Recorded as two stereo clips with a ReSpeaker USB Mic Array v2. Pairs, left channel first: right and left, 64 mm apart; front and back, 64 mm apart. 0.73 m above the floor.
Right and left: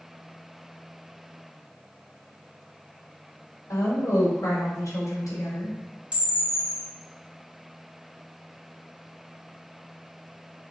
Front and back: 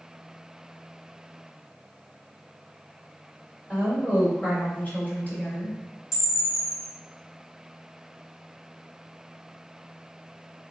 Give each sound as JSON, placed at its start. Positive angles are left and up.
{"t": 3.7, "sound": "a woman speaking", "azimuth_deg": -65, "distance_m": 2.5}
{"t": 6.1, "sound": "a camera shutter", "azimuth_deg": 20, "distance_m": 1.9}